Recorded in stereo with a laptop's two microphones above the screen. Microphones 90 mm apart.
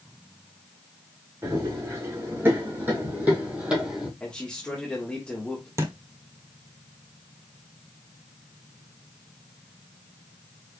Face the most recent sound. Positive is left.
turn(degrees=-35)  # may be behind; listen again after turning